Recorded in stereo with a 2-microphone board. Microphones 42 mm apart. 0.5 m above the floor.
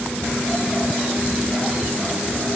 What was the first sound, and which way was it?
Only background noise.